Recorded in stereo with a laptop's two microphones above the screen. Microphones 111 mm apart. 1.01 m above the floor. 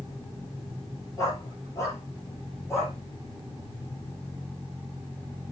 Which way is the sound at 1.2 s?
30° left (ahead or behind).